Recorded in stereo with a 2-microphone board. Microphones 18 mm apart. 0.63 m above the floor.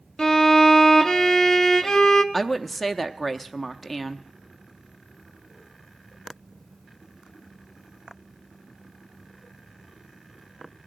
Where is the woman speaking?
15° left (ahead or behind), 0.7 m.